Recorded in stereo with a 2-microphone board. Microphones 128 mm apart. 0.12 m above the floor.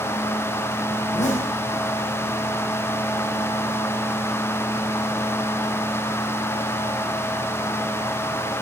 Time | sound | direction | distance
1.0 | a zipper | 65° left (ahead or behind) | 4.5 m